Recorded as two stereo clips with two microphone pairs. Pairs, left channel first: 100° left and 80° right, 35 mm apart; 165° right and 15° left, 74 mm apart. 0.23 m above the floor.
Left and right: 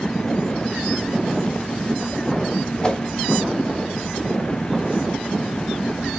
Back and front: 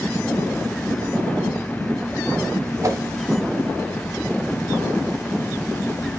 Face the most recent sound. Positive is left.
turn(degrees=40)